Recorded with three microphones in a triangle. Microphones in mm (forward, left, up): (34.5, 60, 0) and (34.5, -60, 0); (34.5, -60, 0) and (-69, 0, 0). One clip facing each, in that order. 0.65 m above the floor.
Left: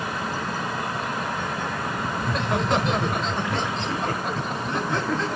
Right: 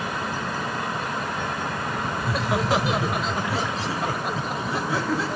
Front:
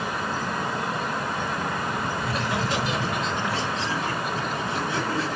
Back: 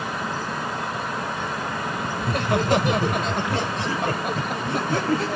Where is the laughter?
175° right, 1.8 m.